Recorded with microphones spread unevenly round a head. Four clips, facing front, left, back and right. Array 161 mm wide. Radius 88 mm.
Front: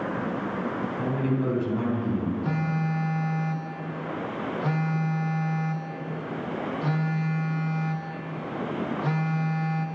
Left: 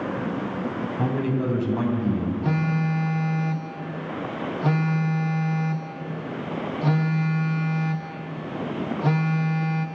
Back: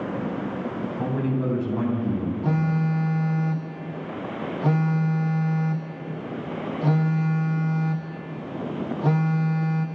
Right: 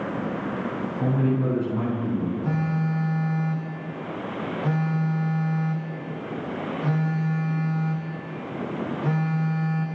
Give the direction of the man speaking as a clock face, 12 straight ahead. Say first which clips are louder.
Right 2 dB, back 1 dB; 9 o'clock.